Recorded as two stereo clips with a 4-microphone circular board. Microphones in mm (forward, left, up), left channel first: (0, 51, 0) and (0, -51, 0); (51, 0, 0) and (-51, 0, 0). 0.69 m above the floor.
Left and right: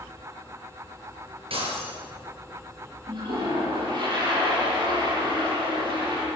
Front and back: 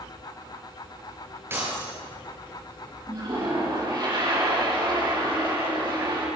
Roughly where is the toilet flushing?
Behind right.